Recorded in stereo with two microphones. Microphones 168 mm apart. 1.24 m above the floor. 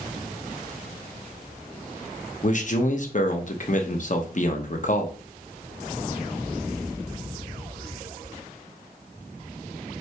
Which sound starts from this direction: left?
A man speaking, at 2.4 s.